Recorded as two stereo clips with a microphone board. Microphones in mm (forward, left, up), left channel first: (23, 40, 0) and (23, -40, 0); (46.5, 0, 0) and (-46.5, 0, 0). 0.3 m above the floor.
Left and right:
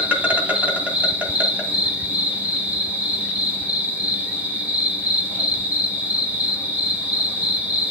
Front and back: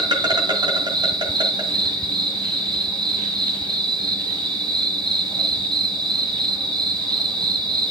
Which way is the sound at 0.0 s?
155° right.